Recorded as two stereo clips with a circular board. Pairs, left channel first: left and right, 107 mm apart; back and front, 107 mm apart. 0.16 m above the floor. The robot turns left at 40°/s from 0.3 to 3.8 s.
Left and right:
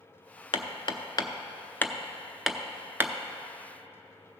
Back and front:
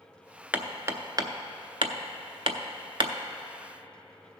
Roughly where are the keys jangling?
No keys jangling in this recording.